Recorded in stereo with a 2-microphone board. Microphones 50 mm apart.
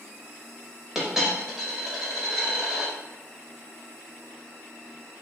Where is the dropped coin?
10° right (ahead or behind), 0.8 m.